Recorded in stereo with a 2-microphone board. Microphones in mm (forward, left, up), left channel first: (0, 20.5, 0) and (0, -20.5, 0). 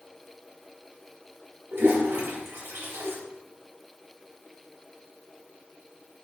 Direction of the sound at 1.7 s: 75° right (ahead or behind).